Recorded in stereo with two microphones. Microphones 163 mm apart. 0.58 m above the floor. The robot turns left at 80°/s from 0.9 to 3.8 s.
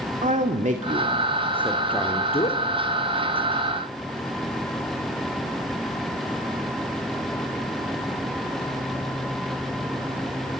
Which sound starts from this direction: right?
A man speaking, at 0.2 s.